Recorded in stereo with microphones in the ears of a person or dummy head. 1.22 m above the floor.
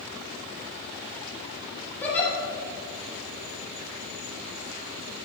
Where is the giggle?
10° left (ahead or behind), 1.7 m.